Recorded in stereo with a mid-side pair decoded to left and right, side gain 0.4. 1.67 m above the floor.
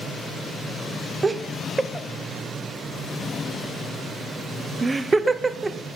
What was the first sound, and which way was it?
Laughter, 25° right.